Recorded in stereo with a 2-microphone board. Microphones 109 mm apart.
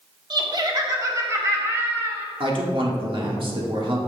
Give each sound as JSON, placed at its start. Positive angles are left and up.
{"t": 0.3, "sound": "laughter", "side_deg": -45, "distance_m": 1.1}
{"t": 2.4, "sound": "a man speaking", "side_deg": -55, "distance_m": 1.4}